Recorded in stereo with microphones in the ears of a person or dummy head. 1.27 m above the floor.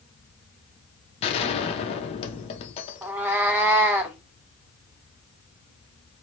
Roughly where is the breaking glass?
No breaking glass in this recording.